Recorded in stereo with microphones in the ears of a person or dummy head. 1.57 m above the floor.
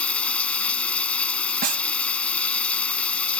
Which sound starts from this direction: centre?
Running water, at 0.0 s.